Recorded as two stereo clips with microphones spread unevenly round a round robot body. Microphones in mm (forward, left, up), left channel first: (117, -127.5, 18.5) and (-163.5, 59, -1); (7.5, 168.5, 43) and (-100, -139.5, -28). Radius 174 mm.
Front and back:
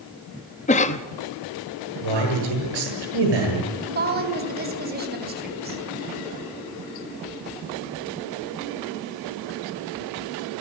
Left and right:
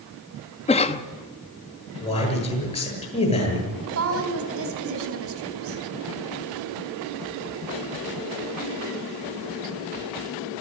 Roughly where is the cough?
Ahead.